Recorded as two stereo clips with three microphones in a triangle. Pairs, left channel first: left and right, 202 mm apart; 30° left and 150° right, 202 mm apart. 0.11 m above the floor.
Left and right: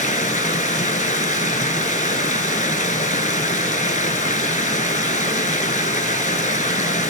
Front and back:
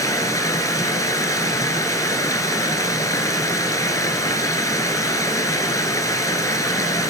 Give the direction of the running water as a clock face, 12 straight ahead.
9 o'clock.